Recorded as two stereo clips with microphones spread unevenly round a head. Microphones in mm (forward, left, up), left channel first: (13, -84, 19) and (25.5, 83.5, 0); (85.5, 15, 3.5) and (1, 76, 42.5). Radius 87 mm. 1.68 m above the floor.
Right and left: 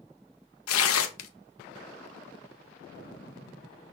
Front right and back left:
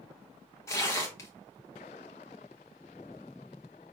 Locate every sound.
0.7 s tearing paper: 100° right, 0.5 m